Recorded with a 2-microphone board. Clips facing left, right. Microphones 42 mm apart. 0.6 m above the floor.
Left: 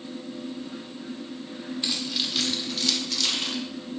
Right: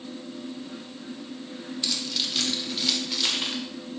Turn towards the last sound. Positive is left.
turn(degrees=-20)  # may be behind; listen again after turning